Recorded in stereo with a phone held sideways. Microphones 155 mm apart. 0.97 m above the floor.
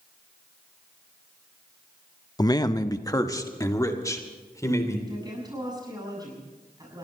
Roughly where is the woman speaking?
Right.